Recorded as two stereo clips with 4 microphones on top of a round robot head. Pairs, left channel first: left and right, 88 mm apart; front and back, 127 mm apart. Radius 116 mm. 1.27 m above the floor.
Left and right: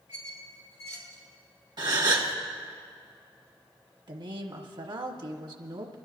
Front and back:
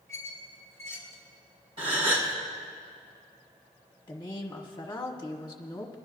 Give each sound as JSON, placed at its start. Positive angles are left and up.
{"t": 0.1, "sound": "a squeak", "azimuth_deg": 70, "distance_m": 4.0}
{"t": 1.8, "sound": "a gasp", "azimuth_deg": -125, "distance_m": 1.6}
{"t": 4.1, "sound": "a woman speaking", "azimuth_deg": -65, "distance_m": 1.2}